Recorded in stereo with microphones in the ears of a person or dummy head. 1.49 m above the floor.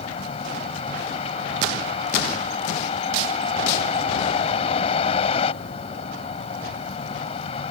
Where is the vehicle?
35° left (ahead or behind).